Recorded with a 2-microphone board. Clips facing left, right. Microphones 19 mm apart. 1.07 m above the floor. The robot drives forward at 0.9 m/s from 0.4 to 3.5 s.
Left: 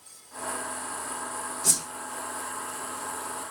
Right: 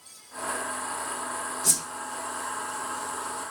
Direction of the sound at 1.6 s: 5° left (ahead or behind).